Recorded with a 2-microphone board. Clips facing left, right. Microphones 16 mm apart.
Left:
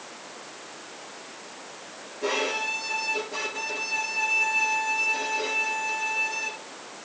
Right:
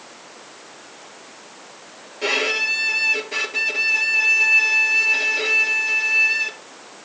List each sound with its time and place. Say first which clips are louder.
2.2 s a violin: right 7 dB; 65° right (ahead or behind), 2.5 m